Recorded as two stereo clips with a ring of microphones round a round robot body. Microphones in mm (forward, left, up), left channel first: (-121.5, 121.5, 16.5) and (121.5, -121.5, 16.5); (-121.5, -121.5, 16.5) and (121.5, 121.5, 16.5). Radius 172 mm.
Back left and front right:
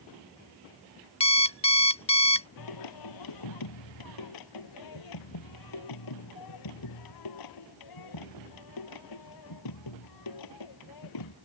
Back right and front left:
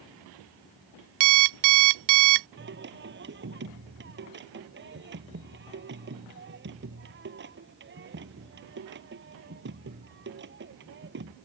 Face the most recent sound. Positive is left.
turn(degrees=105)